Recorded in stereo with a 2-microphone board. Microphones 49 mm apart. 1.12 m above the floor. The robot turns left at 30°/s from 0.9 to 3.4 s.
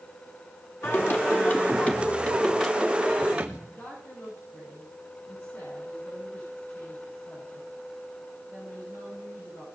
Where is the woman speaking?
45° left (ahead or behind), 9 m.